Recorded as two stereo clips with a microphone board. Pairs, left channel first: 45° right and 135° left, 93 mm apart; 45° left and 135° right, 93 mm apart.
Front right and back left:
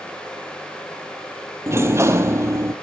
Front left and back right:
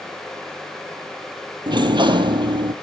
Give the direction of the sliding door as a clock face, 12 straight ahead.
6 o'clock.